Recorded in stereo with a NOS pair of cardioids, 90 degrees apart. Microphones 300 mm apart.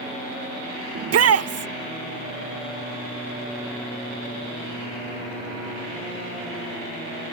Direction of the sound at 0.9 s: 55° right.